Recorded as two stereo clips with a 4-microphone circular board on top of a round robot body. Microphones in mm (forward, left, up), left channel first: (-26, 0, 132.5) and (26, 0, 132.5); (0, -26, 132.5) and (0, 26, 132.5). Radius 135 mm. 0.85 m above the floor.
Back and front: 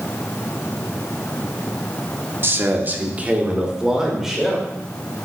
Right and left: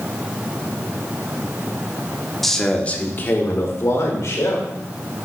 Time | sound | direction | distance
2.4 | a man speaking | 5° right | 1.2 m